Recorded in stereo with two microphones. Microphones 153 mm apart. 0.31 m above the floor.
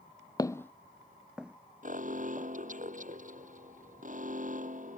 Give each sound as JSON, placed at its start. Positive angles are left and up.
{"t": 0.4, "sound": "footsteps", "side_deg": 25}
{"t": 1.8, "sound": "an alarm", "side_deg": -50}